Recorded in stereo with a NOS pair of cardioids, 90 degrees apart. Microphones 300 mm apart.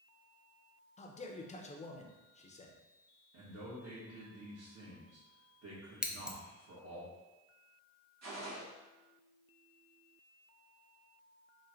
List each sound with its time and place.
1.0 s a man speaking: 20° left, 0.8 m
3.3 s a man speaking: 50° right, 1.8 m
6.0 s scissors: 5° right, 0.5 m
8.2 s a gunshot: 60° right, 1.6 m